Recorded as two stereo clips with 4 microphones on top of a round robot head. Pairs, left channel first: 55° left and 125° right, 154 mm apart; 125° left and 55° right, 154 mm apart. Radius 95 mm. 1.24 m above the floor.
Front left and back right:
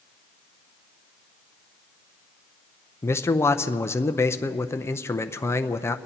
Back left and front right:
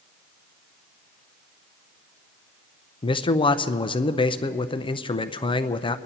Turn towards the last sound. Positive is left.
turn(degrees=115)